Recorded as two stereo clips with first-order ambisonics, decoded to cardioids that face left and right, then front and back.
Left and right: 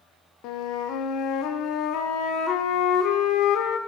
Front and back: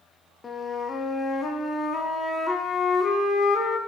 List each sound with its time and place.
0.4 s a flute: 70° left, 0.7 m